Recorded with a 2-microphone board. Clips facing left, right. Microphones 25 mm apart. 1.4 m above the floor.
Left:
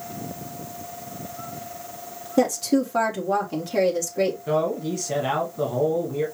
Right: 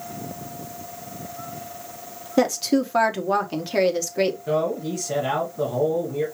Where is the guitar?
No guitar in this recording.